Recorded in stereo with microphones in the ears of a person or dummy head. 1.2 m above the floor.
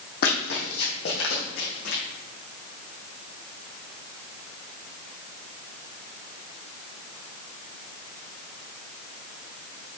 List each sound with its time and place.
0.2 s running footsteps: 55° left (ahead or behind), 2.5 m; by 2.0 s 70° left (ahead or behind), 3.5 m